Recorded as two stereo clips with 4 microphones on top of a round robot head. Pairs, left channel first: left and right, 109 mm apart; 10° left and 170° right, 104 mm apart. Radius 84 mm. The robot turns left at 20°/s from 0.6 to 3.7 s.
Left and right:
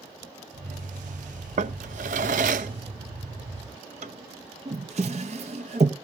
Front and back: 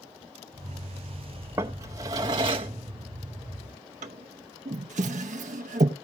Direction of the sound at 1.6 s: 95° right.